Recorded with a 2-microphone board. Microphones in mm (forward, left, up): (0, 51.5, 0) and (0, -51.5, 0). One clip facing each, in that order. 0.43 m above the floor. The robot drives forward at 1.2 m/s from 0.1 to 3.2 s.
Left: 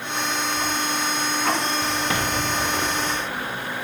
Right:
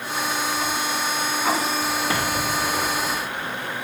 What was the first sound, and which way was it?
Only background noise.